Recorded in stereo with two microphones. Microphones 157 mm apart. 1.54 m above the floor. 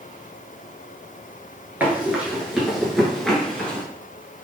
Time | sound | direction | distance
1.8 | running footsteps | 10° right (ahead or behind) | 1.5 m